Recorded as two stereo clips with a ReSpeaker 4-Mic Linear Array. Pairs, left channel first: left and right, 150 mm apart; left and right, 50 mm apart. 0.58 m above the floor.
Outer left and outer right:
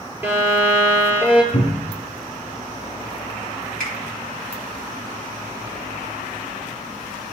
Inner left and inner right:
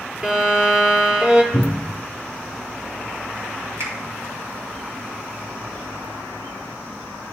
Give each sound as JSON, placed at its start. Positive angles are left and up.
{"t": 0.2, "sound": "a violin", "side_deg": -15, "distance_m": 2.0}
{"t": 1.5, "sound": "a cupboard door", "side_deg": 45, "distance_m": 1.0}
{"t": 3.8, "sound": "a finger snap", "side_deg": -75, "distance_m": 4.0}